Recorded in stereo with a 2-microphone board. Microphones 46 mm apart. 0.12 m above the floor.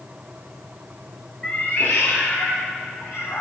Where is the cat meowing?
15° left (ahead or behind), 0.8 m; by 3.4 s 70° left (ahead or behind), 3 m.